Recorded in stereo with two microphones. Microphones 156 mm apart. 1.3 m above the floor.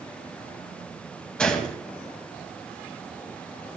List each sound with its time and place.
1.4 s a gunshot: 5° left (ahead or behind), 1.7 m